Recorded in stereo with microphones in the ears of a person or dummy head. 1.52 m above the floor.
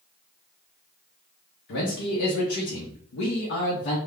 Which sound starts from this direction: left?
A man speaking, at 1.7 s.